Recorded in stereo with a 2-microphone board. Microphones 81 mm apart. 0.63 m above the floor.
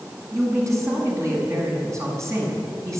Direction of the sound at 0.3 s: 40° right (ahead or behind).